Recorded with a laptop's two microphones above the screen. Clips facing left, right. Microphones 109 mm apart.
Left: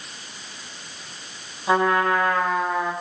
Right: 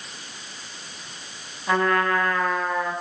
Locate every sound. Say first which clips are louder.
1.7 s a trumpet: left 2 dB; 20° left (ahead or behind), 5 m